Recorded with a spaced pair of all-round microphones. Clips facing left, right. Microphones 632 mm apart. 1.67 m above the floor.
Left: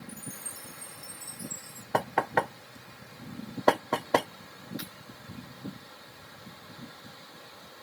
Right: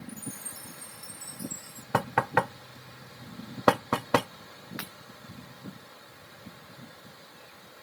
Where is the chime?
5° right (ahead or behind).